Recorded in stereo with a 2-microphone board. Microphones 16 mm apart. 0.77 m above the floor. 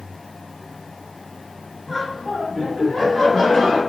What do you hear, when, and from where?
1.9 s laughter: 30° left (ahead or behind), 1.4 m; by 3.8 s 65° left (ahead or behind), 2 m